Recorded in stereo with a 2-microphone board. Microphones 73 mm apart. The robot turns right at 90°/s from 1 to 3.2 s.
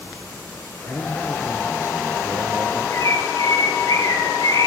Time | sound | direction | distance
0.9 | a man speaking | 140° left | 2.5 m
2.9 | a bird | 40° left (ahead or behind) | 3 m